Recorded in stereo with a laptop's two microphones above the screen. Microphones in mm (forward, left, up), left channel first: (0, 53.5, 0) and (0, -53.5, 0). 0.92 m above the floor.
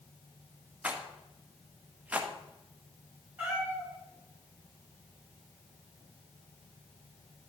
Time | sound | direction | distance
0.8 | a rattle | 15° right (ahead or behind) | 1.1 m
3.4 | a cat meowing | 15° right (ahead or behind) | 5.5 m